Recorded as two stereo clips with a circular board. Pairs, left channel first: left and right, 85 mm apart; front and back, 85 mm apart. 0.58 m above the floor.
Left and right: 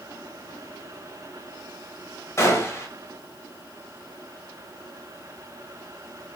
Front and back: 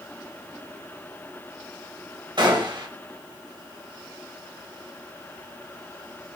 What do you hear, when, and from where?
2.4 s a gunshot: 150° left, 0.8 m